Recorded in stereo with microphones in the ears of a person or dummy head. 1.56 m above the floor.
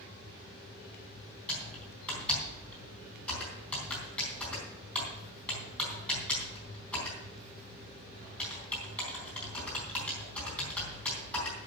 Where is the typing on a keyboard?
5° left (ahead or behind), 3.5 m.